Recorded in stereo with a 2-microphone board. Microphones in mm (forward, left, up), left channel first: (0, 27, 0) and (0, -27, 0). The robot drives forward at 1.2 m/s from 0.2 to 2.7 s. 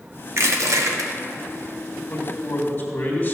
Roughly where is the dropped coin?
No dropped coin in this recording.